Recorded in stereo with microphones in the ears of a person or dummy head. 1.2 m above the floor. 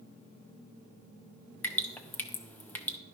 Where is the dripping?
5° left (ahead or behind), 0.5 m.